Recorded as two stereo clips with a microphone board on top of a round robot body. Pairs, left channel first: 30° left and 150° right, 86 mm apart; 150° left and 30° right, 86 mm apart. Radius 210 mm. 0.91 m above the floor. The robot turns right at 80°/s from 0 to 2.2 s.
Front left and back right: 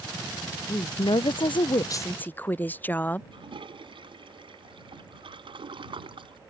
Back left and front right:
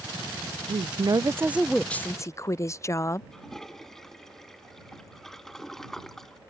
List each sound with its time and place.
0.7 s a woman speaking: 25° right; by 3.2 s 100° left
3.3 s a toilet flushing: 125° right